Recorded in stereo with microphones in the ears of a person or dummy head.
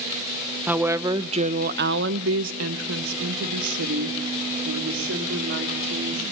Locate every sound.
0.7 s a woman speaking: 5° right (ahead or behind), 1.1 m; by 6.2 s 60° right (ahead or behind), 3.5 m